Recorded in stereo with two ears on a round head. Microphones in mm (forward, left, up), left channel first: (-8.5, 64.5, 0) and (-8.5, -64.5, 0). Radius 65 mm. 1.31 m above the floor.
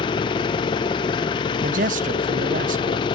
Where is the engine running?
30° left (ahead or behind), 0.9 m.